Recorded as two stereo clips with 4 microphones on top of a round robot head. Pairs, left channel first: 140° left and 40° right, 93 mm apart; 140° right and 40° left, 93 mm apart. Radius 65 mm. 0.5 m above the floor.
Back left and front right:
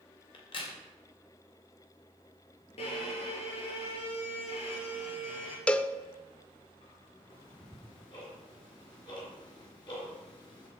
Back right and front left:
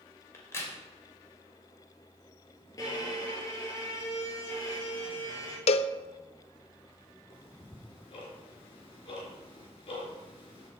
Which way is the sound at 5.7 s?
145° right.